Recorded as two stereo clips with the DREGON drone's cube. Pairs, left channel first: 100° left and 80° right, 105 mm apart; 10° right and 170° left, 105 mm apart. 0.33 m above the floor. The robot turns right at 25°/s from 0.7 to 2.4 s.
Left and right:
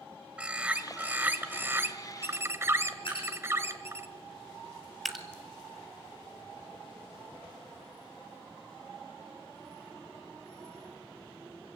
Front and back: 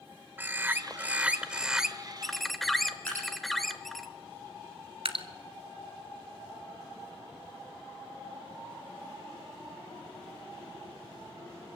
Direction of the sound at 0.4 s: 140° right.